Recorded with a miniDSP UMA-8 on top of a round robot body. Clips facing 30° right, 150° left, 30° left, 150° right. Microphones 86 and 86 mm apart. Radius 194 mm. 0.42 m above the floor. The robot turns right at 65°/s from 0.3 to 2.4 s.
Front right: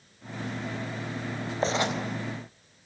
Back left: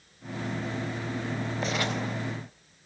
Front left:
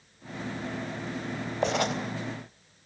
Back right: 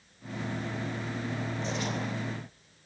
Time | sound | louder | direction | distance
1.6 | writing | front right 5 dB, front left 11 dB | 25° left | 4 m